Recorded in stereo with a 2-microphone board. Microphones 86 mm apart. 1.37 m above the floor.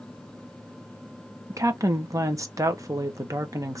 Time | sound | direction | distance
1.5 | a woman speaking | 40° right (ahead or behind) | 1.1 m